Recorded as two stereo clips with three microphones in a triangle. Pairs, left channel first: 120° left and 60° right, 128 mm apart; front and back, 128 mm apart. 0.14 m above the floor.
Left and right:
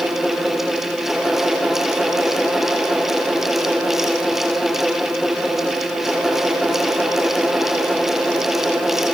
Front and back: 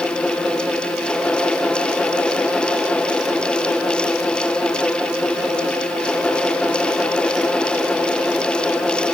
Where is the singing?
No singing in this recording.